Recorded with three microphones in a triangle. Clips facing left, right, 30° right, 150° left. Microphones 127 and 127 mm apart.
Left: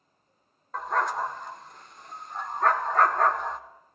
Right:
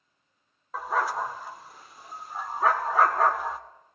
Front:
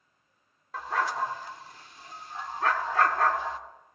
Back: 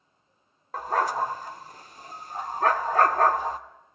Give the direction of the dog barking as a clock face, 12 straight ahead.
6 o'clock.